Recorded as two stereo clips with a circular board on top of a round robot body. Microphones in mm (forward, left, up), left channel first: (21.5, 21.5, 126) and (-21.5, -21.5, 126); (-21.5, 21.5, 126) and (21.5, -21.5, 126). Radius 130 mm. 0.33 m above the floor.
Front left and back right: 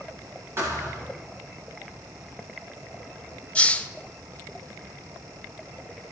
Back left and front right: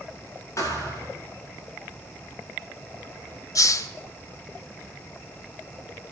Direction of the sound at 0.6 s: 175° left.